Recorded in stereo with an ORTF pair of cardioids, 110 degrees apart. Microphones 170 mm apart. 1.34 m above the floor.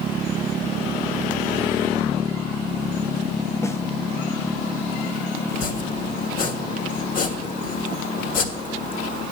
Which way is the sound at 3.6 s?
15° left.